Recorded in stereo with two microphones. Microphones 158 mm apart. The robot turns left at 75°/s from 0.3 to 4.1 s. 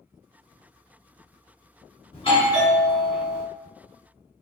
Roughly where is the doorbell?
Ahead left.